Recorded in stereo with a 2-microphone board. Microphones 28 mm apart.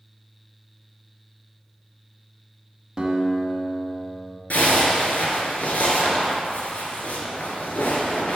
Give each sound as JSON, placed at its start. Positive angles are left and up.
{"t": 3.0, "sound": "a guitar", "side_deg": -25, "distance_m": 1.1}
{"t": 4.5, "sound": "a zipper", "side_deg": 70, "distance_m": 1.3}